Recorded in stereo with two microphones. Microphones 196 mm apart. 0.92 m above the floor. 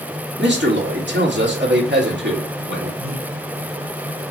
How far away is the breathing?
About 1.4 m.